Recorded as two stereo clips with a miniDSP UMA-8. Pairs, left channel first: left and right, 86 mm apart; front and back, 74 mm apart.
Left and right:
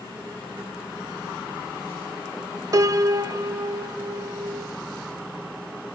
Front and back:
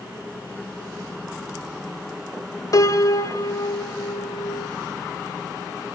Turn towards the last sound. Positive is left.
turn(degrees=-45)